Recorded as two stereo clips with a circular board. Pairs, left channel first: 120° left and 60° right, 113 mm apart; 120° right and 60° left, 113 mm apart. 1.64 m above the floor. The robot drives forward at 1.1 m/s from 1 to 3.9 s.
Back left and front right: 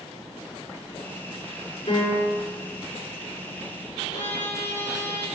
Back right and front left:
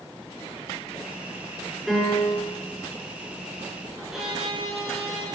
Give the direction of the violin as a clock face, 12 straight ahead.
7 o'clock.